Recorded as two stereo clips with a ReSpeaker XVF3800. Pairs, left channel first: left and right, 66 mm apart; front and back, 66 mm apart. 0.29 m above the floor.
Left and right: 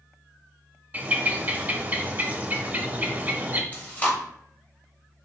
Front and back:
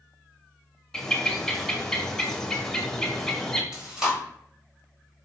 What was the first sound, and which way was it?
A bird, 70° right.